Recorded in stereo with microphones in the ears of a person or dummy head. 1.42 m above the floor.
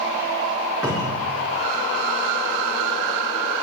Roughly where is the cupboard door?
Centre.